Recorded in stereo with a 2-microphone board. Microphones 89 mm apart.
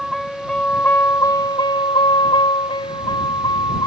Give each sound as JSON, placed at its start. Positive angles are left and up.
{"t": 0.0, "sound": "a vehicle", "side_deg": 0}